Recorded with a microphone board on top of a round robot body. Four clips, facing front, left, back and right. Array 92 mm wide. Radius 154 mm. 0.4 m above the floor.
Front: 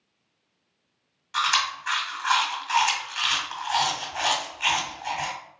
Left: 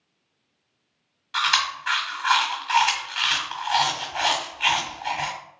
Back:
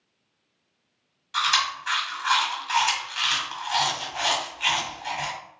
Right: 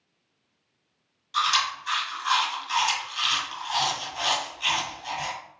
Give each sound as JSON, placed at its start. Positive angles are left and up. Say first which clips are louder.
{"t": 1.3, "sound": "chewing", "louder": "left 1 dB, even", "azimuth_deg": 70, "distance_m": 1.6}